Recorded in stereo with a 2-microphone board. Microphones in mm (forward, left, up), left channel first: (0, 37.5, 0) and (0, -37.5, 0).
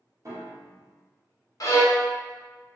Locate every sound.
0.2 s a piano: 40° right (ahead or behind), 0.7 m
1.6 s a violin: 50° left (ahead or behind), 0.7 m